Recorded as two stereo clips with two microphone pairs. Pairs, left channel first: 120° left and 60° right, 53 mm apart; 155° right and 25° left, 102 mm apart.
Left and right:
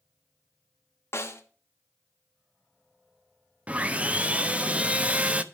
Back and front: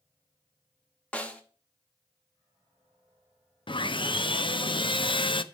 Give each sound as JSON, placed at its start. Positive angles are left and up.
{"t": 1.1, "sound": "a snare drum", "azimuth_deg": 130, "distance_m": 1.2}
{"t": 3.7, "sound": "sawing", "azimuth_deg": -125, "distance_m": 0.5}